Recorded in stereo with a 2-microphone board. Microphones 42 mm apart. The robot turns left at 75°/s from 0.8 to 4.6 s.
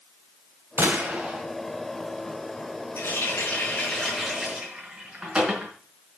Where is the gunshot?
110° right, 2.5 m; by 1.5 s 160° right, 2.5 m.